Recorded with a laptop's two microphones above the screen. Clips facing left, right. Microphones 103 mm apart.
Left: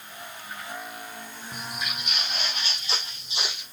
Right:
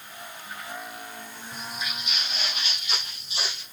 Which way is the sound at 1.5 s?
60° left (ahead or behind).